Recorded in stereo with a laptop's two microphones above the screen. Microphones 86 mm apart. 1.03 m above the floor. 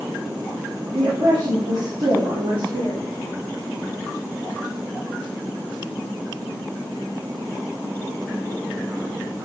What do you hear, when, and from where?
0.9 s a woman speaking: 50° right (ahead or behind), 3 m; by 3.0 s 75° right (ahead or behind), 3 m